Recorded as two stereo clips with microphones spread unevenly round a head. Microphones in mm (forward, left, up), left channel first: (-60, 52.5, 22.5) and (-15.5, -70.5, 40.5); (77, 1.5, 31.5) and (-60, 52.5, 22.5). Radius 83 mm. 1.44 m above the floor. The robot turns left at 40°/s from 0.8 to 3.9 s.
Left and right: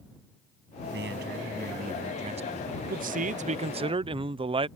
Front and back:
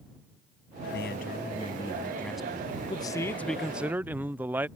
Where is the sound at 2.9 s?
85° right; by 4.7 s 125° right.